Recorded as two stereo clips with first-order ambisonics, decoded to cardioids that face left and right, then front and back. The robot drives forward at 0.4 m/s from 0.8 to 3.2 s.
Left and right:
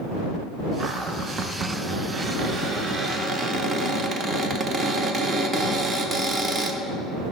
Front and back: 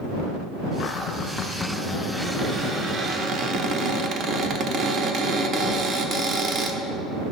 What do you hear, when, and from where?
0.8 s a cupboard door: 40° right, 0.8 m; by 6.8 s 145° right, 0.9 m